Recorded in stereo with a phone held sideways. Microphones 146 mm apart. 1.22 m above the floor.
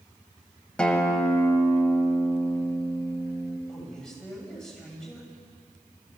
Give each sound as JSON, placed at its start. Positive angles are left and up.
{"t": 0.8, "sound": "a guitar", "side_deg": 5, "distance_m": 2.0}
{"t": 3.7, "sound": "a man speaking", "side_deg": 5, "distance_m": 6.5}